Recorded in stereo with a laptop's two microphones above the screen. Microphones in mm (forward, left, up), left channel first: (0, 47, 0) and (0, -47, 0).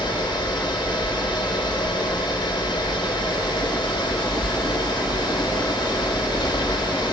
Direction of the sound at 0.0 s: 55° left (ahead or behind).